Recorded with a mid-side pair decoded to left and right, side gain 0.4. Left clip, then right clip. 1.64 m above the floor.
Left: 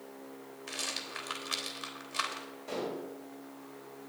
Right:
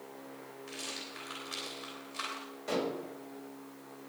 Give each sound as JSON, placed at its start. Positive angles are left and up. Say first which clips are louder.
{"t": 0.7, "sound": "a rattle", "louder": "left 5 dB", "azimuth_deg": 65, "distance_m": 3.5}
{"t": 2.7, "sound": "dishes clattering", "louder": "right 3 dB", "azimuth_deg": -55, "distance_m": 5.0}